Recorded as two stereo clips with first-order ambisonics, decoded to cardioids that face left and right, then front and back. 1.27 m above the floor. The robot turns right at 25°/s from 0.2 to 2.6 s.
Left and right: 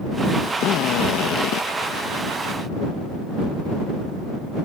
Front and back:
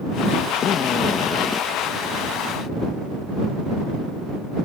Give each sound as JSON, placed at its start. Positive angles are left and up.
{"t": 0.6, "sound": "a drill", "azimuth_deg": 50}